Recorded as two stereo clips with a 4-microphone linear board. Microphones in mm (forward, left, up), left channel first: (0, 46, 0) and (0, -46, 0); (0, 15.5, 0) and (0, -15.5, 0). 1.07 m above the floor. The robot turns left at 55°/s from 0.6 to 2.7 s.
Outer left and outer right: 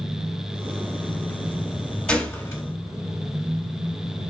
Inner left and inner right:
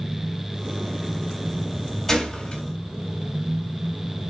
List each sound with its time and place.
2.1 s a gunshot: 10° left (ahead or behind), 1.5 m; by 2.6 s 40° left (ahead or behind), 1.5 m